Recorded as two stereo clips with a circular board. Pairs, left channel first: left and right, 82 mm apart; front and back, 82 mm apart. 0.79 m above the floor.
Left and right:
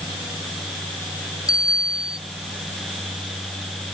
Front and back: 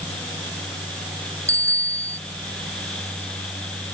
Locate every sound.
1.5 s a bicycle bell: 130° left